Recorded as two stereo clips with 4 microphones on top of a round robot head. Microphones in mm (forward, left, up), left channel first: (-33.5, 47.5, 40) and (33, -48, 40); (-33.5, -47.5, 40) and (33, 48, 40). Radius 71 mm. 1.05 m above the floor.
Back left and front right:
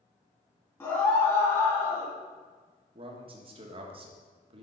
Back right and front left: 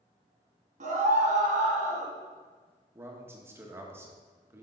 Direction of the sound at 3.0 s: 15° right.